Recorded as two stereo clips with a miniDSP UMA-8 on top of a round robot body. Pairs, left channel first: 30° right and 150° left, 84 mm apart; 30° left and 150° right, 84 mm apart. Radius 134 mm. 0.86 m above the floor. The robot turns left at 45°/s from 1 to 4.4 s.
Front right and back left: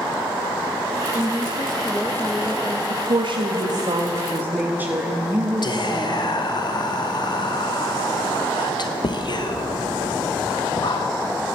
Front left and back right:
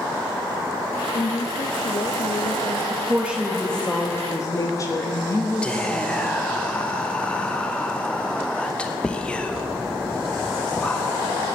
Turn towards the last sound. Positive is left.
turn(degrees=-45)